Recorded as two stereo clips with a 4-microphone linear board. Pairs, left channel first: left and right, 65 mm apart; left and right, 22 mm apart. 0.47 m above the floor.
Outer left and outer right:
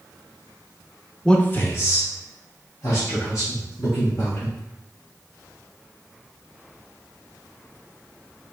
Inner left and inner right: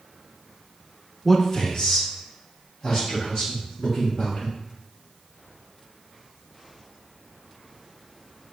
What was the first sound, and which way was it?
A man speaking, 10° left (ahead or behind).